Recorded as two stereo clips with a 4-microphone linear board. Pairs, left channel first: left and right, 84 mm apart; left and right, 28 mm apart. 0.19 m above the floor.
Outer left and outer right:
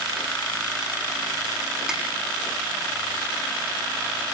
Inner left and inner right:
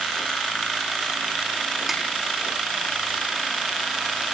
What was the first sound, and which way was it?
A snare drum, 10° right (ahead or behind).